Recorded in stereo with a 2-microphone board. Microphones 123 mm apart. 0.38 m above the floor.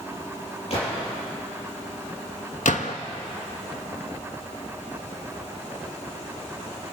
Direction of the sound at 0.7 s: 55° left (ahead or behind).